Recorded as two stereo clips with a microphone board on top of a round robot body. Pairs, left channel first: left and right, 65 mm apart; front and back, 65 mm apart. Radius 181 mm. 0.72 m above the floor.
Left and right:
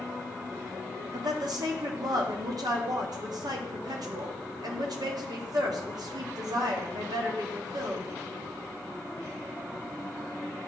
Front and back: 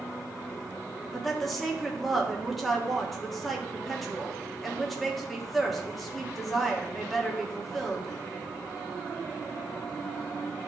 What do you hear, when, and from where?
1.1 s a woman speaking: 90° right, 1.5 m